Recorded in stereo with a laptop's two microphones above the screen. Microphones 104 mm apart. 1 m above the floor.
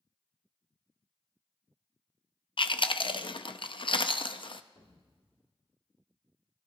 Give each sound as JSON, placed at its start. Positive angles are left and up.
{"t": 2.6, "sound": "chewing", "side_deg": 55, "distance_m": 0.5}
{"t": 4.8, "sound": "an explosion", "side_deg": 65, "distance_m": 1.6}